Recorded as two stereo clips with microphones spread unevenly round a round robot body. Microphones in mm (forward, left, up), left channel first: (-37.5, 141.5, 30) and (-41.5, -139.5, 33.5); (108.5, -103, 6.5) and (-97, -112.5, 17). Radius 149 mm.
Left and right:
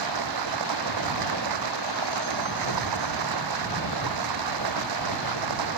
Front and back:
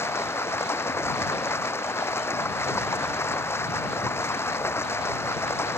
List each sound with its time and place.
0.0 s running water: 75° right